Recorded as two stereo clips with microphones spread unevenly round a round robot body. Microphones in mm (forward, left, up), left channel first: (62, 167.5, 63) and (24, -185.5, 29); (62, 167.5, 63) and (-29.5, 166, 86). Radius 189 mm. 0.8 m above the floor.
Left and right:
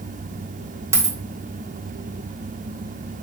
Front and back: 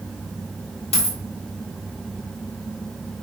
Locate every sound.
0.9 s a dropped coin: 10° right, 1.3 m